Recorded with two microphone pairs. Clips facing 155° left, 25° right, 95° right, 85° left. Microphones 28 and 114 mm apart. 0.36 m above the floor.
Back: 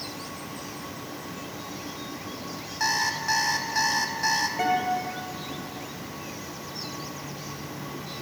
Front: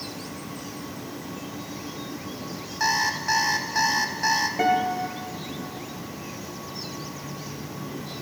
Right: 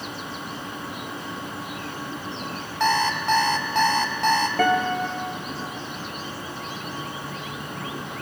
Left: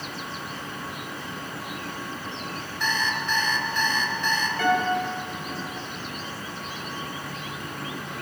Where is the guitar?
105° right, 2 m.